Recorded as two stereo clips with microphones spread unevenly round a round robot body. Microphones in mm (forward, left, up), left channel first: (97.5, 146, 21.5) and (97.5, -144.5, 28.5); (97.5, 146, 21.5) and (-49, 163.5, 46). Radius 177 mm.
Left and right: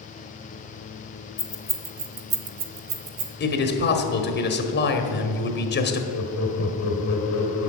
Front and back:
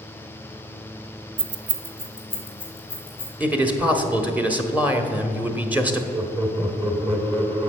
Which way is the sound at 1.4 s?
140° left.